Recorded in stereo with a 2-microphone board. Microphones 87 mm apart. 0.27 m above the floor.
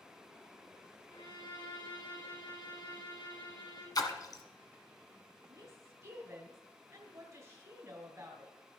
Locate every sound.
1.1 s a violin: 70° left (ahead or behind), 3 m
4.0 s a splash: 50° left (ahead or behind), 1.3 m
5.5 s a woman speaking: 35° right (ahead or behind), 1.8 m